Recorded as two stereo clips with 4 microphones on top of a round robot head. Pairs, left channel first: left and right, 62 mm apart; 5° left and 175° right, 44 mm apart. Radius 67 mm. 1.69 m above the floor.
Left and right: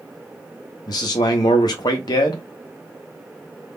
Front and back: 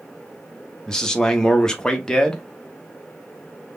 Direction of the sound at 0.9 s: 80° left.